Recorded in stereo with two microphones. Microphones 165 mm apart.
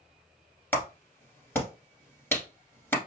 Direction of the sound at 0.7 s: 15° left (ahead or behind).